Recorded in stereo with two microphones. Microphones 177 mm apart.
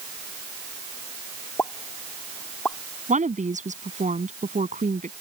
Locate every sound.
1.6 s a pop: 15° left (ahead or behind)
3.1 s a woman speaking: 45° right (ahead or behind)